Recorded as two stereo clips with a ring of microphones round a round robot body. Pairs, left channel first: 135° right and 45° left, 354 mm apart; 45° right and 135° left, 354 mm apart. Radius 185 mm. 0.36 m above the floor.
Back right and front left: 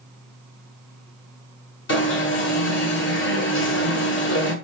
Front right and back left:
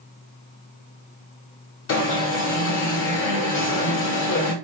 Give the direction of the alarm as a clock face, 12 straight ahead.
3 o'clock.